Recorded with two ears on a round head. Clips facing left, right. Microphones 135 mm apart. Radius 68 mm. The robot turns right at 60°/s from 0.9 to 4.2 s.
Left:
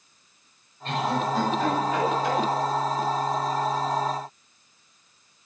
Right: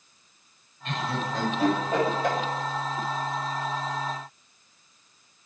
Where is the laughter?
35° left (ahead or behind), 7 m; by 2.4 s 55° right (ahead or behind), 7 m.